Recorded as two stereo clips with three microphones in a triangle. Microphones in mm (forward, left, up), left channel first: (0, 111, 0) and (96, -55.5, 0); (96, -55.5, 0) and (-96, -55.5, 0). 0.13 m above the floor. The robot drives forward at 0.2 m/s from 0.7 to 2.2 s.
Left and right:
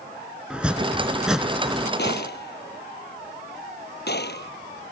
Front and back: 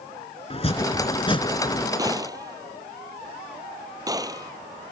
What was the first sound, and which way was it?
Chopping, 20° left.